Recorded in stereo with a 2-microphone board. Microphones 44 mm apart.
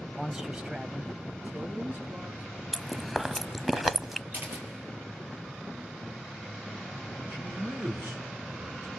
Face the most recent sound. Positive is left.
turn(degrees=-60)  # may be behind; listen again after turning